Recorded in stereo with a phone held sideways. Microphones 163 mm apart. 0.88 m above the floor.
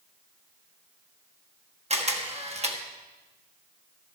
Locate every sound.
1.9 s a camera shutter: 40° right (ahead or behind), 1.5 m